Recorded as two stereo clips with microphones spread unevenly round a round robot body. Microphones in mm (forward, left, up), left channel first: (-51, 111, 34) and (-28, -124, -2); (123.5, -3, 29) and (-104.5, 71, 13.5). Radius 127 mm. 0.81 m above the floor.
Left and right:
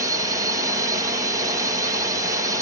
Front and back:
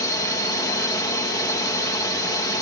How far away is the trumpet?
I don't hear a trumpet.